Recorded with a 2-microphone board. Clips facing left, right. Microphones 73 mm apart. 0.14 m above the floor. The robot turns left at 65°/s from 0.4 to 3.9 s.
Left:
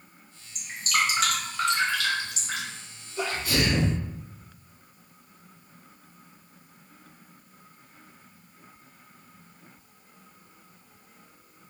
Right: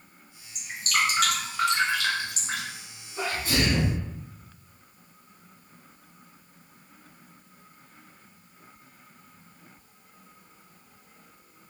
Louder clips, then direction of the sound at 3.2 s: Even; 100° right.